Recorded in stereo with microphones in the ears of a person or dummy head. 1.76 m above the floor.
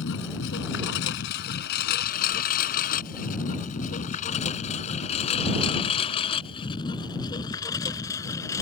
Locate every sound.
0.0 s a lawn mower: 65° left (ahead or behind); by 8.6 s 15° left (ahead or behind)